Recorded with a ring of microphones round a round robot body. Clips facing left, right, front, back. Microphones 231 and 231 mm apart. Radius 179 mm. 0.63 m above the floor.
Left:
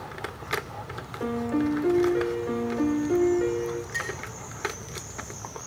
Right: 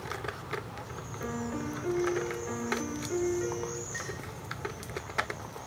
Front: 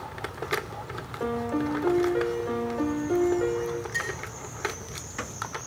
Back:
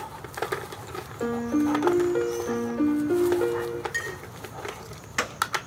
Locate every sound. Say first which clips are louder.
1.2 s a piano: left 10 dB, back 4 dB; 120° left, 1.1 m
3.9 s a clink: left 4 dB, front 1 dB; 160° left, 6 m